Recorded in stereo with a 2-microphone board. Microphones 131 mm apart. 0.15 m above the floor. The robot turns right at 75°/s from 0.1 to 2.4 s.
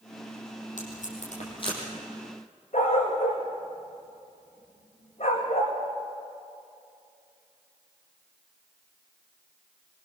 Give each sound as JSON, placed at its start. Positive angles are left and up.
{"t": 0.8, "sound": "tape being pulled", "side_deg": 70, "distance_m": 5.5}
{"t": 2.7, "sound": "a dog barking", "side_deg": 50, "distance_m": 5.0}